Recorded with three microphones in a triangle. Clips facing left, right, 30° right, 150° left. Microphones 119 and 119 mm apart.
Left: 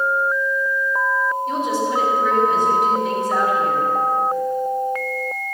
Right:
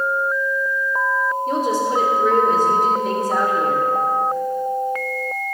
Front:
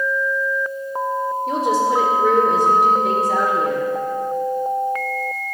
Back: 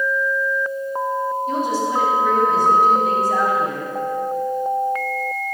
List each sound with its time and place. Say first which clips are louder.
1.5 s a woman speaking: right 1 dB, front 6 dB; 40° right, 2.5 m